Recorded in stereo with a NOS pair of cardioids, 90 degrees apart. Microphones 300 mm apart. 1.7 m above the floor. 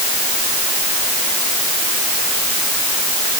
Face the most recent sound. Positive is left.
No sound to turn to.